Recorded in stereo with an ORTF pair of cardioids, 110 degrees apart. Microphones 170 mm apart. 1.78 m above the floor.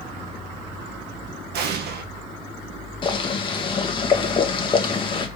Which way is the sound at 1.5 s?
70° right.